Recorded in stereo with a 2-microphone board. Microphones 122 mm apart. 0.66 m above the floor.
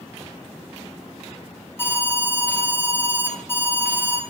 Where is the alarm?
20° left (ahead or behind), 5 m.